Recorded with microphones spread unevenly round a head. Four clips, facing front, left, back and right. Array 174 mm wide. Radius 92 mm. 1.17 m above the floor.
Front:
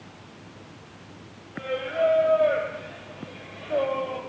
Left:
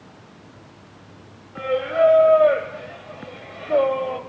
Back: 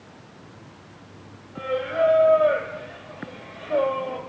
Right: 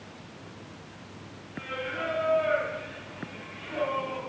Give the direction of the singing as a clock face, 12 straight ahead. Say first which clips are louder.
Left 15 dB, back 3 dB; 9 o'clock.